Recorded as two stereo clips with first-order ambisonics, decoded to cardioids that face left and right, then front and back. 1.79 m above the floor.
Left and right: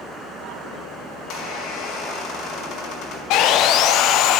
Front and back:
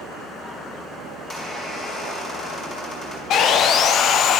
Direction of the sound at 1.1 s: 65° left.